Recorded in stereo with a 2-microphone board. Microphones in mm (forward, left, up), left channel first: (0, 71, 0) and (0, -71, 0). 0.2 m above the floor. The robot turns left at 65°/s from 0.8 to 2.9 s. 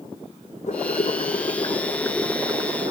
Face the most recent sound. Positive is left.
turn(degrees=-45)